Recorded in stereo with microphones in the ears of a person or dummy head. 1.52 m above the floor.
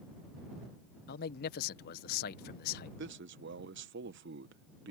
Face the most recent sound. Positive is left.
turn(degrees=-60)  # may be behind; listen again after turning